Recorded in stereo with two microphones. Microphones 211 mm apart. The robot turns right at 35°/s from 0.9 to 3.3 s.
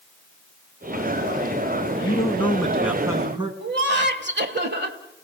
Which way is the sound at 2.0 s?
160° left.